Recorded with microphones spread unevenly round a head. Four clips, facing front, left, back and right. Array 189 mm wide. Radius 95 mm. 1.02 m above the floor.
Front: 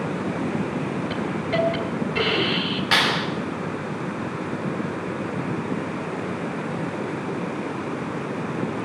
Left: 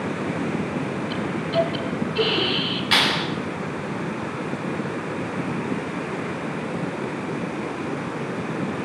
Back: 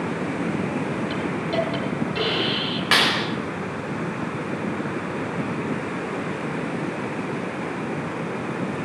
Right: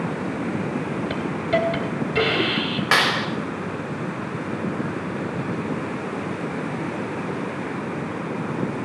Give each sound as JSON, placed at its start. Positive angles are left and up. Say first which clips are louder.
{"t": 1.1, "sound": "a hiss", "louder": "right 1 dB, even", "azimuth_deg": -85, "distance_m": 3.5}
{"t": 2.9, "sound": "a clap", "louder": "right 2 dB, back 1 dB", "azimuth_deg": -120, "distance_m": 5.0}